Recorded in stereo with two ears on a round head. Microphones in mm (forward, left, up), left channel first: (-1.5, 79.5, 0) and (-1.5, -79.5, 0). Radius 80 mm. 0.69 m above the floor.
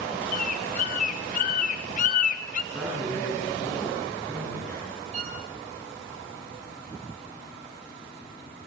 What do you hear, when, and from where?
0.3 s a bird: 45° left (ahead or behind), 1.4 m
2.7 s a man speaking: 5° left (ahead or behind), 10 m
5.1 s a violin: 40° right (ahead or behind), 7 m